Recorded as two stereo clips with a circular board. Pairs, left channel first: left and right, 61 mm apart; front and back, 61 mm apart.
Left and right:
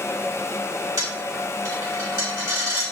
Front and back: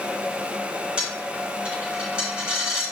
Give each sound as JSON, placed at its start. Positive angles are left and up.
{"t": 1.0, "sound": "a dropped coin", "azimuth_deg": -110, "distance_m": 2.5}